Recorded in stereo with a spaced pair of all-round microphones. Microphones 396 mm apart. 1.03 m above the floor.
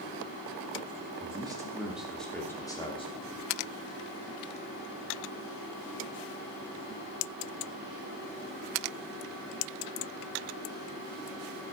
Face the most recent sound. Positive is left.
turn(degrees=20)  # may be behind; listen again after turning